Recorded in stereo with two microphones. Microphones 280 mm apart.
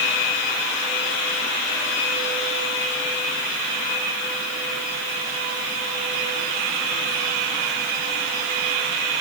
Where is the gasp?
No gasp in this recording.